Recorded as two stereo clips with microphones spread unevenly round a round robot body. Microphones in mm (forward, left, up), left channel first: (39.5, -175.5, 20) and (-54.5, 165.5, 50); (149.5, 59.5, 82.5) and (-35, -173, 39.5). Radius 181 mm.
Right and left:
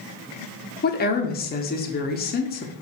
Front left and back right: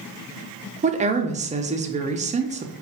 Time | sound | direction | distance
0.8 | a woman speaking | 100° right | 0.7 m